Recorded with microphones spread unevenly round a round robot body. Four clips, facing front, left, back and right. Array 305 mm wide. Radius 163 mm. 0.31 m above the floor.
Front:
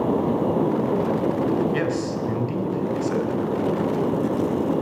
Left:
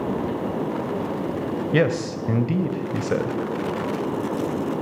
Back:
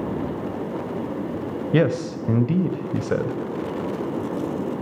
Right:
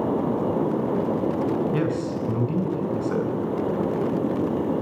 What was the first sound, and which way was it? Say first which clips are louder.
A man speaking: left 3 dB, back 3 dB; 155° left.